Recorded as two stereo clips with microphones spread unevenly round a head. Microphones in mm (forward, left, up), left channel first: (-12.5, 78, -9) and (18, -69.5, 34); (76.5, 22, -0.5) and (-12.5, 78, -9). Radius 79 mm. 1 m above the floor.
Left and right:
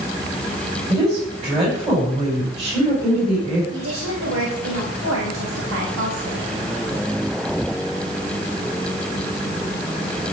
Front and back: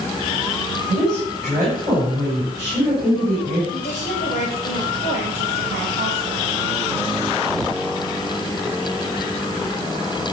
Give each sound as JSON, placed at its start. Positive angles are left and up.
{"t": 0.9, "sound": "a woman speaking", "azimuth_deg": -135, "distance_m": 6.5}
{"t": 3.7, "sound": "a woman speaking", "azimuth_deg": -85, "distance_m": 4.5}